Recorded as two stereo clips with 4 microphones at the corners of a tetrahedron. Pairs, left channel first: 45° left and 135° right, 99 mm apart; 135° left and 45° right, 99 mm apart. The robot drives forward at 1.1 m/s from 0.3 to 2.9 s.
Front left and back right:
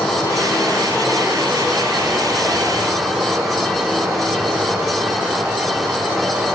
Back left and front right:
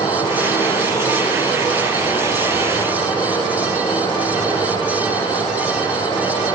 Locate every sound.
0.0 s running water: 115° left, 4 m; by 6.6 s 140° left, 6 m